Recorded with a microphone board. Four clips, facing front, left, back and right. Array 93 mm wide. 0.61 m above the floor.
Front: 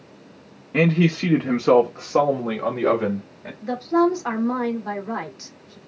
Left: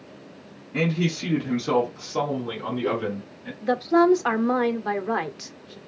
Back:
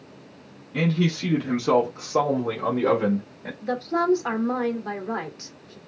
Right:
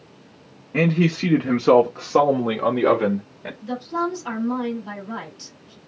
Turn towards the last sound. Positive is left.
turn(degrees=90)